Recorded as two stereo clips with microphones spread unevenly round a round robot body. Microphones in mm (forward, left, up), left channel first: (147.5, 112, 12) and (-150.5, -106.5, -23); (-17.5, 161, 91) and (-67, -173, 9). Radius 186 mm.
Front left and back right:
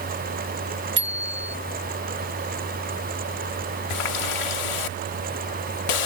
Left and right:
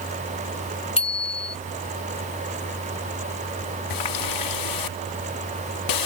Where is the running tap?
45° left.